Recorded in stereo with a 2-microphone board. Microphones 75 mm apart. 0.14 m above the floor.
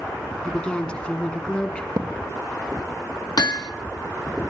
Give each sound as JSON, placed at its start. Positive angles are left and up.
{"t": 0.4, "sound": "a woman speaking", "side_deg": 15, "distance_m": 1.6}
{"t": 2.0, "sound": "a thud", "side_deg": -70, "distance_m": 3.5}
{"t": 3.4, "sound": "hammering", "side_deg": 70, "distance_m": 1.0}